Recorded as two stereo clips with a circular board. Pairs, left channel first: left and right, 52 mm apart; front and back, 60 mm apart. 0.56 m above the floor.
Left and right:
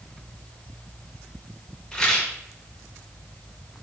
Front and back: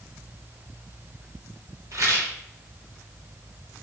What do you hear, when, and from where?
1.9 s a rattle: 165° left, 1.3 m